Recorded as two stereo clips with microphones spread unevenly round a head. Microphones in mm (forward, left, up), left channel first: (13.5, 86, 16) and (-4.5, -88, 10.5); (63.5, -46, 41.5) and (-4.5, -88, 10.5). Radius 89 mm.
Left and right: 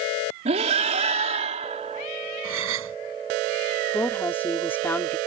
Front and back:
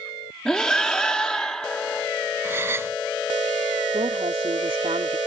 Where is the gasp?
85° right.